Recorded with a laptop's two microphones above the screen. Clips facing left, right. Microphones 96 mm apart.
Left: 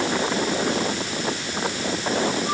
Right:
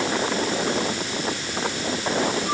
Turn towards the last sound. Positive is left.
No sound to turn to.